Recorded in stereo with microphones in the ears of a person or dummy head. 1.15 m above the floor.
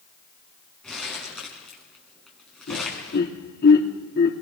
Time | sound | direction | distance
0.8 | crumpling | 5° left (ahead or behind) | 6 m
2.7 | laughter | 55° left (ahead or behind) | 3 m